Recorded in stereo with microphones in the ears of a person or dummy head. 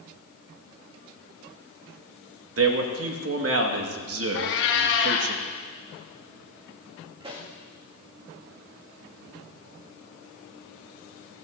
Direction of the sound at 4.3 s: 55° left (ahead or behind).